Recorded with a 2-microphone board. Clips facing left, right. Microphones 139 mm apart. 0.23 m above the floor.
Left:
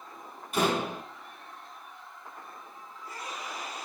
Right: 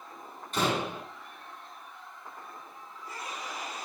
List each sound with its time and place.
0.5 s a door slam: 10° left (ahead or behind), 7 m